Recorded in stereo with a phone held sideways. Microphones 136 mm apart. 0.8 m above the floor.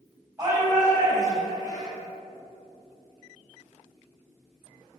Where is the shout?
20° right (ahead or behind), 5 m.